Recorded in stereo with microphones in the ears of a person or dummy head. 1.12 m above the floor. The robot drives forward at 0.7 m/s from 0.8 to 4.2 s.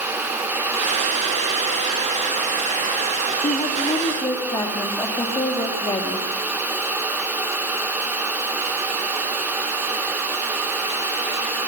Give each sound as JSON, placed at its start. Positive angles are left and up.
{"t": 3.4, "sound": "a woman speaking", "side_deg": 30, "distance_m": 1.9}